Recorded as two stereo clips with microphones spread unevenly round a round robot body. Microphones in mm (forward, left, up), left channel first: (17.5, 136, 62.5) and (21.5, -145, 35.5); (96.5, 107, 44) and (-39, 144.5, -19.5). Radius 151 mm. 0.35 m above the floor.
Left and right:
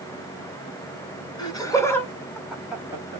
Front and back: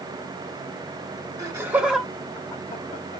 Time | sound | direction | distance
1.4 | laughter | 165° left | 1.0 m